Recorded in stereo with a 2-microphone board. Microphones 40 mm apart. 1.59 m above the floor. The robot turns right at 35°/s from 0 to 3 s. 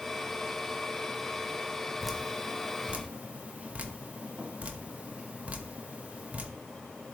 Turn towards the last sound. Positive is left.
turn(degrees=-35)  # may be behind; listen again after turning